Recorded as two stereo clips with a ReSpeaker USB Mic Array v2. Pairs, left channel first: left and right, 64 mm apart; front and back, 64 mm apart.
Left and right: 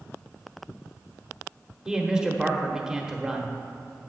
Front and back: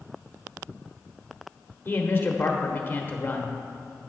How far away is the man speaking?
About 0.9 m.